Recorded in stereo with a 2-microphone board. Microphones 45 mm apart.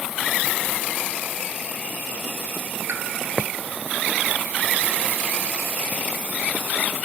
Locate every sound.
2.9 s a pop: 75° right (ahead or behind), 1.3 m